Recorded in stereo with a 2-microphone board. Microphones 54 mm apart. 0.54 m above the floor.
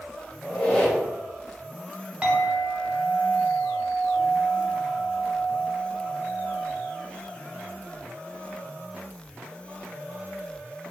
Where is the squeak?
20° left (ahead or behind), 1.3 m.